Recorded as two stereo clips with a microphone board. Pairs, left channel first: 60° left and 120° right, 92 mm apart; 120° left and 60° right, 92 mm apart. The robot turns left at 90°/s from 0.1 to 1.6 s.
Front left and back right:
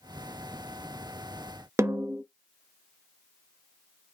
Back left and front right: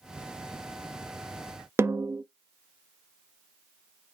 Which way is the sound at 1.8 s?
95° right.